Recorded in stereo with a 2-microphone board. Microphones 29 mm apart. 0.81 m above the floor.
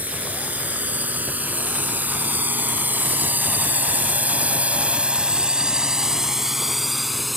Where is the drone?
60° right (ahead or behind); by 7.4 s centre (ahead or behind).